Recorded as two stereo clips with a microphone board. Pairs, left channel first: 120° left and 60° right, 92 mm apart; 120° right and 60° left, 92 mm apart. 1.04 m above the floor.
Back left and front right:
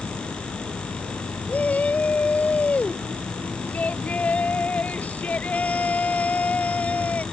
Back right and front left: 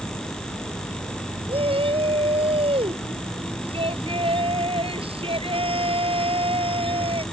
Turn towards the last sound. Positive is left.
turn(degrees=45)